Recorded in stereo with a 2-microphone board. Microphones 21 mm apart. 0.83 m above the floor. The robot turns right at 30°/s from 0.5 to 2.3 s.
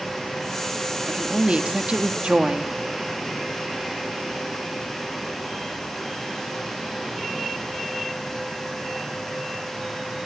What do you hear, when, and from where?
1.1 s a woman speaking: 105° right, 1.8 m; by 2.7 s 65° right, 1.8 m